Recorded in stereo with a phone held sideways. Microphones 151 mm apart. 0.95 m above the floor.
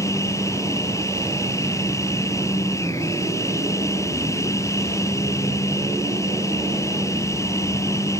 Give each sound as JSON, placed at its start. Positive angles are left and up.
{"t": 0.0, "sound": "a machine running", "side_deg": 20}